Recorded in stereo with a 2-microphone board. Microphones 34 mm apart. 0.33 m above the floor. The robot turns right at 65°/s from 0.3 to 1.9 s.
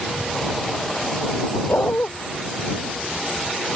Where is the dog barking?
80° left; by 2.1 s 70° left (ahead or behind).